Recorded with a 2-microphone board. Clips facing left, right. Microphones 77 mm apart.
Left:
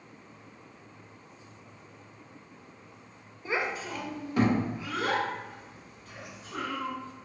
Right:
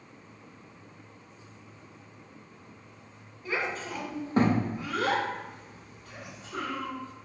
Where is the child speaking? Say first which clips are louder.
Left 1 dB; 25° left (ahead or behind), 0.6 m; by 6.9 s 80° right, 1.7 m.